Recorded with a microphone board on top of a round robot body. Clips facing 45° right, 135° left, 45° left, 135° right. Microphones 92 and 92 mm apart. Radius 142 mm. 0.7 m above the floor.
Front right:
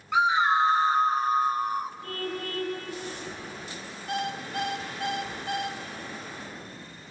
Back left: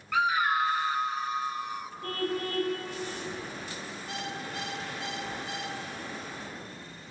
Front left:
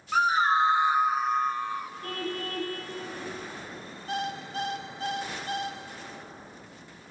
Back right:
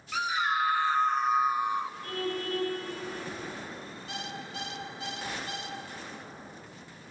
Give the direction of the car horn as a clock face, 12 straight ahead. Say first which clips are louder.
Back left 2 dB, back right 1 dB; 9 o'clock.